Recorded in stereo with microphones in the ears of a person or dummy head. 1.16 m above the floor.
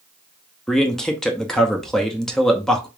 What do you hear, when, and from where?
0.7 s a man speaking: 5° left (ahead or behind), 0.6 m